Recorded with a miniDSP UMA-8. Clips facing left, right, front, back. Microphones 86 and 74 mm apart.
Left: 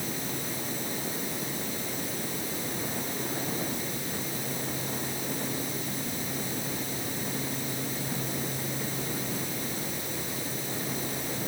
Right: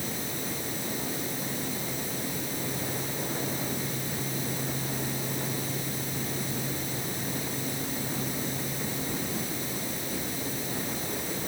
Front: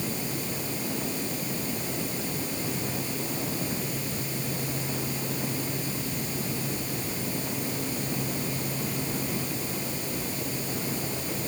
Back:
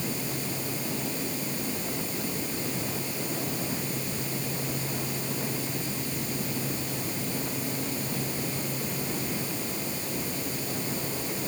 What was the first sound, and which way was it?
Only background noise.